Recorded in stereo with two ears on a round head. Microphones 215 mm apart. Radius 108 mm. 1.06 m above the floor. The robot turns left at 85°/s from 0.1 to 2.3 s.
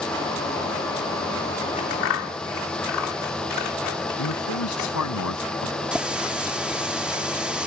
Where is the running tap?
5° right (ahead or behind).